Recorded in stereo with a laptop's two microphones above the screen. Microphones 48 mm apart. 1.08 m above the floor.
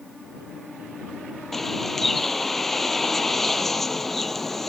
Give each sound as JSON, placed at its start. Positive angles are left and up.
{"t": 1.5, "sound": "a bird", "side_deg": 5}